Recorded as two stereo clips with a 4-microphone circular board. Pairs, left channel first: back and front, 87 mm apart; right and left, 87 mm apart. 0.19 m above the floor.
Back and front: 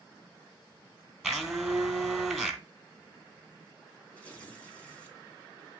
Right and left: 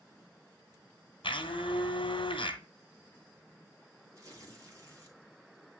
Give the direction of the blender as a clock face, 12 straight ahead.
3 o'clock.